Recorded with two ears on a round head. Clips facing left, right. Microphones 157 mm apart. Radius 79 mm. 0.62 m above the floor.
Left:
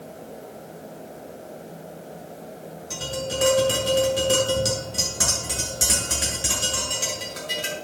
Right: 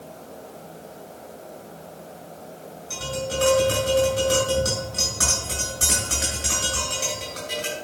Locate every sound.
2.9 s tapping: 25° left (ahead or behind), 6.5 m